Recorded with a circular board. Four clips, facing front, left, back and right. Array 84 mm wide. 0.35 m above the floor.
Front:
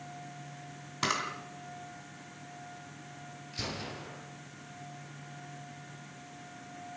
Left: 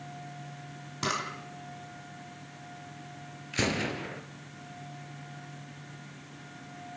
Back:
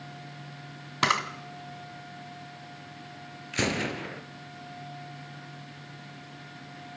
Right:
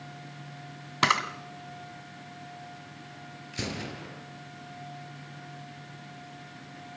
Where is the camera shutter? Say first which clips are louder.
Right 7 dB, back 7 dB; 120° right, 2.5 m.